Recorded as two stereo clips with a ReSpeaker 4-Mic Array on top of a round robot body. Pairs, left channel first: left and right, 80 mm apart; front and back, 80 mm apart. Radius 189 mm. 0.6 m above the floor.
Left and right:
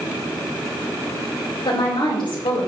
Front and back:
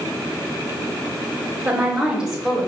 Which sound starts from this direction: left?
A woman speaking, at 1.6 s.